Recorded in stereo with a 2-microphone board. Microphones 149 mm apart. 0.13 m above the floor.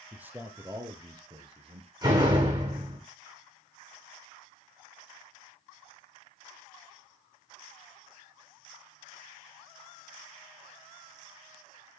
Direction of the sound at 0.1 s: 10° right (ahead or behind).